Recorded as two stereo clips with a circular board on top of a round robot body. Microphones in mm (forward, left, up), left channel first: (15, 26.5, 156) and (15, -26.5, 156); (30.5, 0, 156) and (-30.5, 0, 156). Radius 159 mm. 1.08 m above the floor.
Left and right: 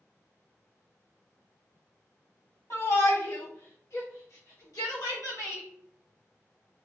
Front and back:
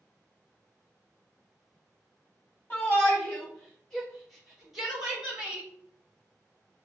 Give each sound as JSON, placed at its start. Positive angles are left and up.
{"t": 2.7, "sound": "a shout", "azimuth_deg": 65, "distance_m": 3.5}